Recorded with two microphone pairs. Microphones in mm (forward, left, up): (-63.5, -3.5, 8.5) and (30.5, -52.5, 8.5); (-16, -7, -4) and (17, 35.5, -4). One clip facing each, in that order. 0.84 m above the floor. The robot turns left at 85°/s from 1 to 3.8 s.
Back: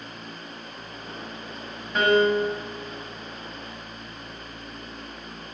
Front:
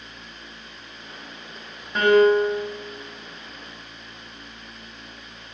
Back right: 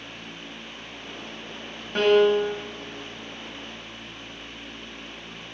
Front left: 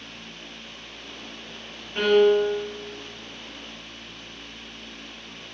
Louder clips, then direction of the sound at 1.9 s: Front 4 dB, even; 115° right.